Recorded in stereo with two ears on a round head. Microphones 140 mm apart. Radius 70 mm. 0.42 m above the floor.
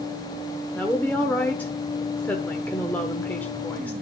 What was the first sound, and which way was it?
A woman speaking, 10° left (ahead or behind).